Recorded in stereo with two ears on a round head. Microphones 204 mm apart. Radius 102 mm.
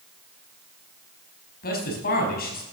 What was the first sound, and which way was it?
A man speaking, 45° left (ahead or behind).